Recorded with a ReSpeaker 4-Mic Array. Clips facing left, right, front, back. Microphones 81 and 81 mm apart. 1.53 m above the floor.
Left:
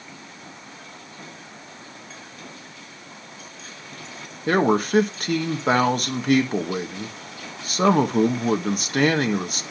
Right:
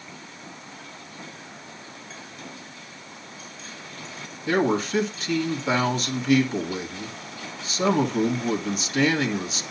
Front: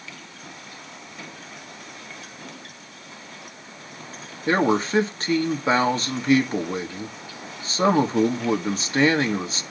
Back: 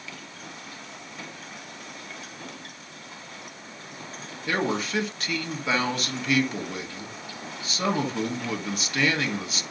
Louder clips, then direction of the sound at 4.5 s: Left 3 dB, front 6 dB; 55° left.